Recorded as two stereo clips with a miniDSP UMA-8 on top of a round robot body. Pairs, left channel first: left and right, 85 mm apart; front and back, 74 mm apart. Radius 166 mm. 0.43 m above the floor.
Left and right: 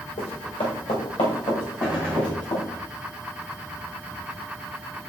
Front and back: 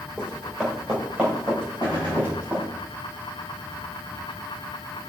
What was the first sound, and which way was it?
Running footsteps, 95° left.